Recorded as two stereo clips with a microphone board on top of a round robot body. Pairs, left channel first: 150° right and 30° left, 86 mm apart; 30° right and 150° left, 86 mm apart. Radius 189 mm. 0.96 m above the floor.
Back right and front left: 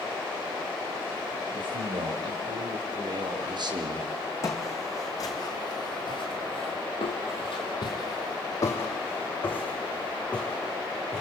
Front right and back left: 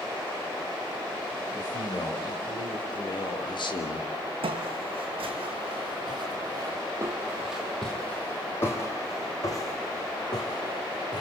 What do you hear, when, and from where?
1.5 s a man speaking: 10° left, 6.5 m; by 4.1 s 10° right, 2.5 m
4.4 s footsteps: 155° left, 2.5 m; by 11.2 s 70° right, 3.5 m